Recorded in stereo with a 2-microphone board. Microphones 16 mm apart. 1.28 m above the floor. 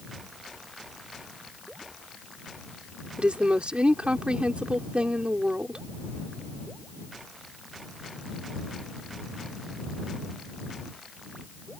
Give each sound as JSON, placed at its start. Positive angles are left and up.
{"t": 3.2, "sound": "a woman speaking", "side_deg": -80}